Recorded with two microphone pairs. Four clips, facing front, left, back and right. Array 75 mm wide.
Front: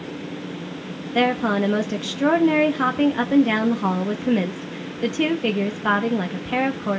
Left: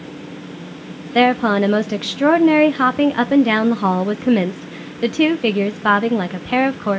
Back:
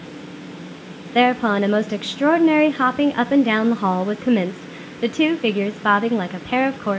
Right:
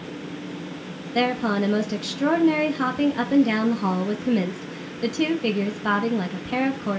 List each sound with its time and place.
1.1 s a woman speaking: 120° left, 0.7 m